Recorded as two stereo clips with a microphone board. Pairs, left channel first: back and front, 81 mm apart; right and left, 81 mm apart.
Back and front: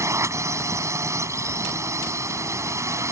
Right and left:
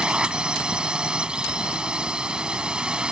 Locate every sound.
0.0 s a drone: 20° left